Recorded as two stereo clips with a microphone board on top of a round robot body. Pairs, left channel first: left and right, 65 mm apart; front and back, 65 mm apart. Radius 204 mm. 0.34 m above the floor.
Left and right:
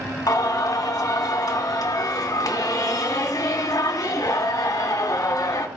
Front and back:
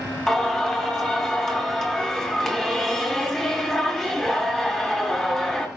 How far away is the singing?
About 3 m.